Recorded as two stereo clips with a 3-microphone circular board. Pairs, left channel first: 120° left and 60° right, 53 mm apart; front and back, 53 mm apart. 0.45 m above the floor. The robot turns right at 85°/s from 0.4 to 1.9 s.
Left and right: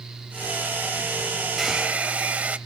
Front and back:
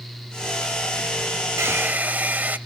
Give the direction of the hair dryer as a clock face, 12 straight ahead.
5 o'clock.